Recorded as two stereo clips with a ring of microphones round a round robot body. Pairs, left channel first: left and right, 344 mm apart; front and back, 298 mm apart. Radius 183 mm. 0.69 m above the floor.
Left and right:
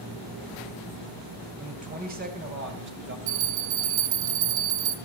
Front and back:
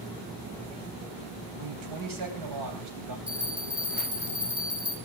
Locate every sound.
1.6 s a man speaking: 160° right, 4 m; by 3.2 s 145° right, 3.5 m
3.3 s a bell: 95° right, 1.6 m